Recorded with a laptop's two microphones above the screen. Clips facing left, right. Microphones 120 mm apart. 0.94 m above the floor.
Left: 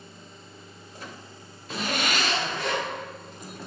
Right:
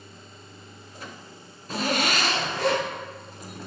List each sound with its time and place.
1.7 s a zipper: 45° right (ahead or behind), 4 m